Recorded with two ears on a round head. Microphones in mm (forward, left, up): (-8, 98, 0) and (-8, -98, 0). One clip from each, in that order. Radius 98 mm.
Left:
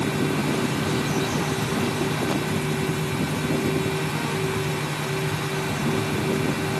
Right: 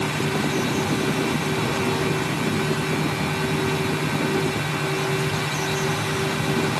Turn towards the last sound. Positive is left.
No sound to turn to.